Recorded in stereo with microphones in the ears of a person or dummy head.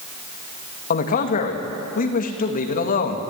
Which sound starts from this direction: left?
A man speaking, at 0.9 s.